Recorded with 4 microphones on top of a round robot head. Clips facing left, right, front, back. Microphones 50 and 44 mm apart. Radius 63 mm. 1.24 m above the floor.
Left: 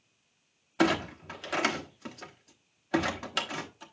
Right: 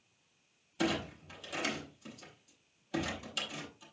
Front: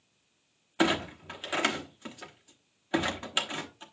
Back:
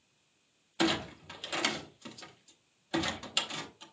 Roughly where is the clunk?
Ahead left.